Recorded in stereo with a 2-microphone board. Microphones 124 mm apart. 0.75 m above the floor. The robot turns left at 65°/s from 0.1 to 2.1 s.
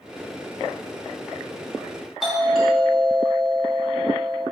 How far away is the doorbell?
About 2 m.